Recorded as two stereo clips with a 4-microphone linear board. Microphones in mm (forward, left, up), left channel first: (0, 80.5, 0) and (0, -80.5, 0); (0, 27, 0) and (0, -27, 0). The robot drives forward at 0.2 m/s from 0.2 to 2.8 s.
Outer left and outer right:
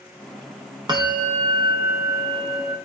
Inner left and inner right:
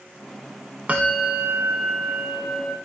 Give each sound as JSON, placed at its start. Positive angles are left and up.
{"t": 0.9, "sound": "a bell", "side_deg": -25, "distance_m": 0.8}